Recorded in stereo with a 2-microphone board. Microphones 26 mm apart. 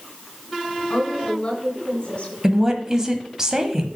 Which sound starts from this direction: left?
A woman speaking, at 0.9 s.